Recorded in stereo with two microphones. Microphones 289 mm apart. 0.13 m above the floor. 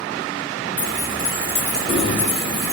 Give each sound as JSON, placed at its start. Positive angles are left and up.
{"t": 0.8, "sound": "keys jangling", "side_deg": 40, "distance_m": 1.4}